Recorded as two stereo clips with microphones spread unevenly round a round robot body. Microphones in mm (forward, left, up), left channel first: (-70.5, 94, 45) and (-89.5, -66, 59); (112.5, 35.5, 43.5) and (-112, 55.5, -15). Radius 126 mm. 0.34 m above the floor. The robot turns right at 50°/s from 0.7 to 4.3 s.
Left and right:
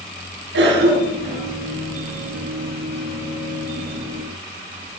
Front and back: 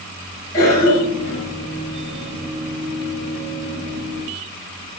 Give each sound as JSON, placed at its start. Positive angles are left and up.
{"t": 0.5, "sound": "a cough", "azimuth_deg": -90, "distance_m": 5.0}